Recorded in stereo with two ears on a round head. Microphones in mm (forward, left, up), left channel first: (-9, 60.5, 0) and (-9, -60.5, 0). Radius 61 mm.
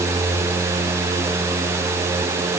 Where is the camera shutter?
I don't hear a camera shutter.